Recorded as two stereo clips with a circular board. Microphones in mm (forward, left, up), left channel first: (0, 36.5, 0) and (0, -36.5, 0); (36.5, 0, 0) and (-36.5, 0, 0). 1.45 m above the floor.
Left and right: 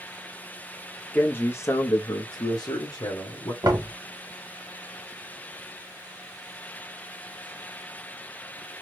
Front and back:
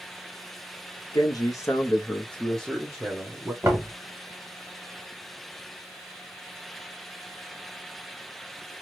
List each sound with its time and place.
1.1 s a man speaking: 20° left, 0.8 m; by 3.5 s 105° left, 1.2 m
3.6 s knocking: 125° right, 1.2 m